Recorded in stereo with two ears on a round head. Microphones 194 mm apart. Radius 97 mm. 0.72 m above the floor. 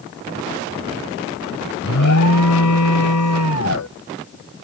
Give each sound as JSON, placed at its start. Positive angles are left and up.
{"t": 1.8, "sound": "an alarm", "side_deg": 85}